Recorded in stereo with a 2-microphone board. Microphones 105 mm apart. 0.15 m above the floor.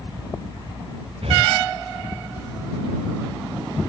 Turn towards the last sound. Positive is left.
turn(degrees=-70)  # may be behind; listen again after turning